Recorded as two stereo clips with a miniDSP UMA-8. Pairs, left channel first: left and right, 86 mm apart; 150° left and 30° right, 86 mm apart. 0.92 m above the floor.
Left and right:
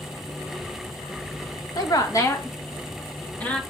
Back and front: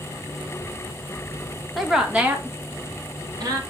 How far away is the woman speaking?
About 1.3 m.